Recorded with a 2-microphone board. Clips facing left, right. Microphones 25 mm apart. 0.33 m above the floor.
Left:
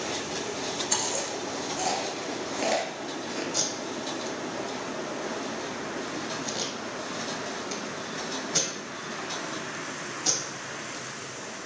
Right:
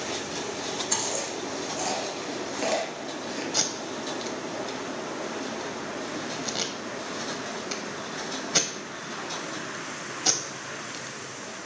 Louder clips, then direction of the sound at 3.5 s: Right 1 dB; 30° right (ahead or behind).